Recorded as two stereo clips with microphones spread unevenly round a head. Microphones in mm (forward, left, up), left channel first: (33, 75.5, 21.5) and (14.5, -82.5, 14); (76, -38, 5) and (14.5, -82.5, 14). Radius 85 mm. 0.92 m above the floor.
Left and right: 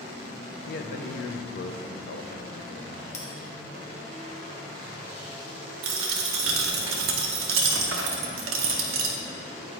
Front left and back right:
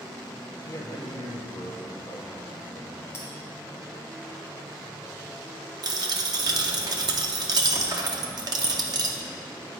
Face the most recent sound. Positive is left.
turn(degrees=-115)